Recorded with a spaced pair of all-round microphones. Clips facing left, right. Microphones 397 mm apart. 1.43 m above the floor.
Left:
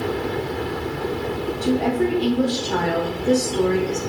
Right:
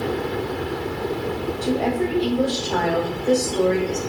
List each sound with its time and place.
1.6 s a woman speaking: 25° left (ahead or behind), 0.9 m